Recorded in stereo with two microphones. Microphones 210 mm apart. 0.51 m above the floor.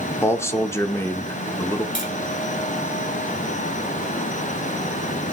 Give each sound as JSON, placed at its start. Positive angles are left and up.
{"t": 0.2, "sound": "a man speaking", "side_deg": 10, "distance_m": 0.9}
{"t": 1.9, "sound": "tapping", "side_deg": 35, "distance_m": 4.0}